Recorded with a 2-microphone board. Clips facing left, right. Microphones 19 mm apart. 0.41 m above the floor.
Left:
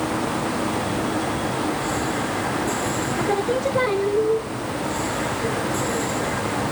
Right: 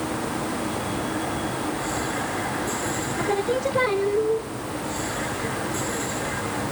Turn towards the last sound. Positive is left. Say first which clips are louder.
# left 1 dB
turn(degrees=-5)  # may be behind; listen again after turning